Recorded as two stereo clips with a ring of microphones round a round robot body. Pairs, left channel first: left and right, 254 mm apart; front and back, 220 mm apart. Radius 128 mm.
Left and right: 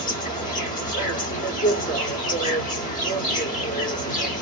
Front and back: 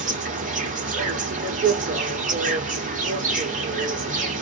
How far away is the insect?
About 1.1 m.